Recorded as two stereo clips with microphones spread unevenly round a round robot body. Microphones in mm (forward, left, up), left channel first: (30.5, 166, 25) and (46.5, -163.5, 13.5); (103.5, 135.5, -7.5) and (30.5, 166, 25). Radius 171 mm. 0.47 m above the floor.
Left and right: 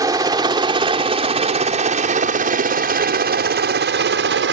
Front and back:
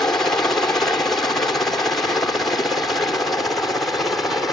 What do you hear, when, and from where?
0.0 s a helicopter: 20° right; by 4.5 s 80° right